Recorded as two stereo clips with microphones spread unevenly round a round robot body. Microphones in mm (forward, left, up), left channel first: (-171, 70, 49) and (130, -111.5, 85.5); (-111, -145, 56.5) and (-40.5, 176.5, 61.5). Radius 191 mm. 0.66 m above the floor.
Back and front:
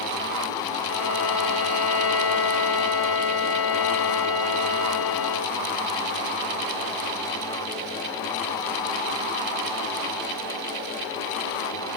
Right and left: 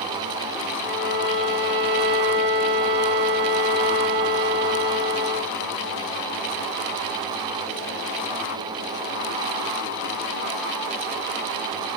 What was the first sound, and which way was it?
A violin, 120° left.